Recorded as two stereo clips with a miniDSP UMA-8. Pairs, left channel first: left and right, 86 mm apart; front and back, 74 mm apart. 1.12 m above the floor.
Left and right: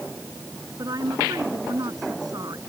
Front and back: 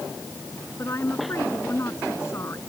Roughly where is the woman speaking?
Ahead right.